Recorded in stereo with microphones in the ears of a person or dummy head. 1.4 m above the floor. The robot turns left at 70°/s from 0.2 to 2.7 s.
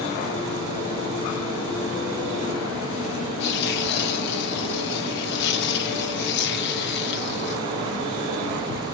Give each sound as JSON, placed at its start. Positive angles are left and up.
{"t": 3.4, "sound": "tearing paper", "side_deg": 60, "distance_m": 2.5}